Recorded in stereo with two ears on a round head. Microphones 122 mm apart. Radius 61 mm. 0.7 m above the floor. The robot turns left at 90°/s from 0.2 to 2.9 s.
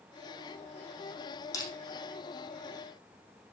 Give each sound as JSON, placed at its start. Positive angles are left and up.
{"t": 1.5, "sound": "crushing", "side_deg": 25, "distance_m": 5.0}